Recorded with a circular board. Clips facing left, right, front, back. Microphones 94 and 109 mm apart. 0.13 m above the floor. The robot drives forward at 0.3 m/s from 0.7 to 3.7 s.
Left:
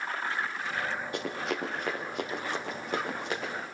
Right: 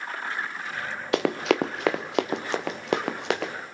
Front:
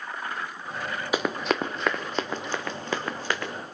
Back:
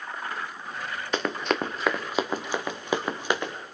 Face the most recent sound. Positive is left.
turn(degrees=-110)